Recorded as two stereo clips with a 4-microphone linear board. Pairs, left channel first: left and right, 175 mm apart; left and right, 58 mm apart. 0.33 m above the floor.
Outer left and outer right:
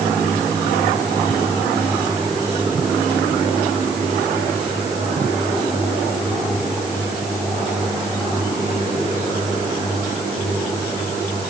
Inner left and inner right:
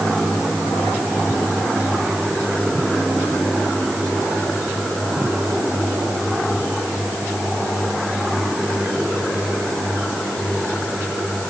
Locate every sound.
Only background noise.